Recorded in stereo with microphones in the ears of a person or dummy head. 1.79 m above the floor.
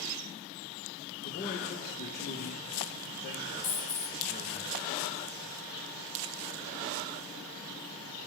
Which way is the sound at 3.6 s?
40° left (ahead or behind).